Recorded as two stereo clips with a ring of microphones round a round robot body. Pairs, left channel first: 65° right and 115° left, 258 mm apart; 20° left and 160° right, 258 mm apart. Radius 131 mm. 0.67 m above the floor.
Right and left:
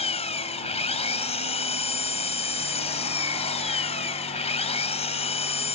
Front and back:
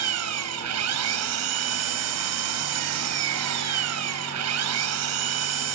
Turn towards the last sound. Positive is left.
turn(degrees=-135)